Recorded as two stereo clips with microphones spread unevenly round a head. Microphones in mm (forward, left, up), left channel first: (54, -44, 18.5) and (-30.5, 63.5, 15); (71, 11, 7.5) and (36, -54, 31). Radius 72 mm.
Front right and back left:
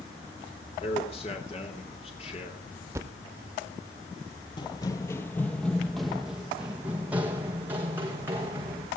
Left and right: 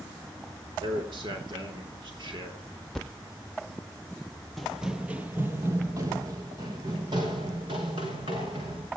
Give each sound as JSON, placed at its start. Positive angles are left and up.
{"t": 0.8, "sound": "a man speaking", "azimuth_deg": -105, "distance_m": 3.0}
{"t": 2.9, "sound": "a thud", "azimuth_deg": 180, "distance_m": 0.6}
{"t": 4.6, "sound": "running footsteps", "azimuth_deg": -60, "distance_m": 1.0}